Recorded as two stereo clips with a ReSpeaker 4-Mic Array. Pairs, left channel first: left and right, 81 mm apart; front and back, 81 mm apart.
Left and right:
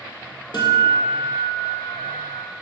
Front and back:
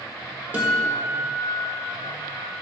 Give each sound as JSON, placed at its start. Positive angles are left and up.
{"t": 0.5, "sound": "a guitar", "azimuth_deg": 110, "distance_m": 2.0}